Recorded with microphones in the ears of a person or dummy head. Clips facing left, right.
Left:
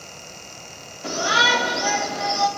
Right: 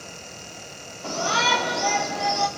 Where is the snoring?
I don't hear snoring.